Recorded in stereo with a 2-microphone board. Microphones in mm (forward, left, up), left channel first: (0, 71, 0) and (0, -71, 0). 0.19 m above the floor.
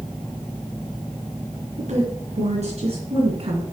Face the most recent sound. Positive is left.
turn(degrees=-45)  # may be behind; listen again after turning